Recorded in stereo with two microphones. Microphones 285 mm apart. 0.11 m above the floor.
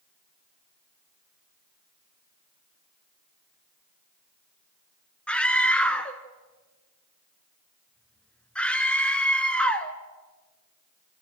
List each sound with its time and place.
5.3 s a scream: 5° left (ahead or behind), 1.2 m